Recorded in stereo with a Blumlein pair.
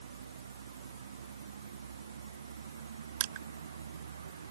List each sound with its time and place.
0.0 s a vehicle: 70° right
3.2 s crushing: 50° right